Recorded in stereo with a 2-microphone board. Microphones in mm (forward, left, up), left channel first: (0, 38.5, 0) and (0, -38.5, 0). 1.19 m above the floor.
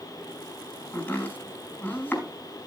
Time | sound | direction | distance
0.9 | chopping | 20° left (ahead or behind) | 4.5 m